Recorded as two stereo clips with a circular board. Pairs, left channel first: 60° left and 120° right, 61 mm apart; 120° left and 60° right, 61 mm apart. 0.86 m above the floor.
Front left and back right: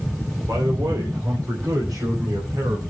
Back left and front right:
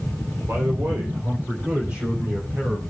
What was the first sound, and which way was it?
A man speaking, 100° right.